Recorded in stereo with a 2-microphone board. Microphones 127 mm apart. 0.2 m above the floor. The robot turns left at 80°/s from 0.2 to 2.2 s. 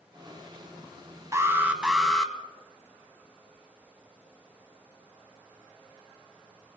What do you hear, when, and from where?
1.3 s an alarm: 25° right (ahead or behind), 1.6 m; by 2.3 s 5° left (ahead or behind), 1.6 m